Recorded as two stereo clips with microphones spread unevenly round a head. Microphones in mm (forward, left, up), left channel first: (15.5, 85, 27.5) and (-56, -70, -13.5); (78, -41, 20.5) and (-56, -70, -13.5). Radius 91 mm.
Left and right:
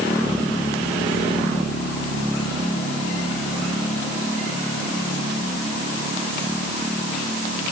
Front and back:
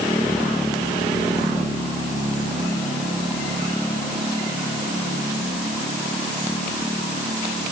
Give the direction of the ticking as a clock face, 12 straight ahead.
I don't hear ticking.